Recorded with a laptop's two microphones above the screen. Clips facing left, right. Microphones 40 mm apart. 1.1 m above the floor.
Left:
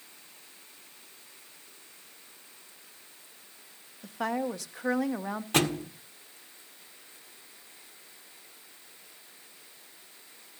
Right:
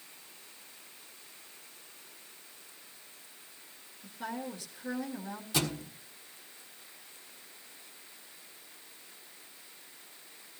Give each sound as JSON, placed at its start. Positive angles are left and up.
{"t": 4.0, "sound": "a woman speaking", "side_deg": 75, "distance_m": 1.4}
{"t": 5.5, "sound": "a thud", "side_deg": 55, "distance_m": 1.5}